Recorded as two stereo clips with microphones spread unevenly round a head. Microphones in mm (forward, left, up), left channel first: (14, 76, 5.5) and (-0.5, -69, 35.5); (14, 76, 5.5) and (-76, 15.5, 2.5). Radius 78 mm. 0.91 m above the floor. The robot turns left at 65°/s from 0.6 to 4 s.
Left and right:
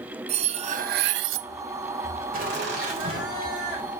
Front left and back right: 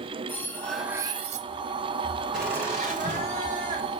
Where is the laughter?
60° right, 3.5 m; by 3.9 s 160° right, 3.5 m.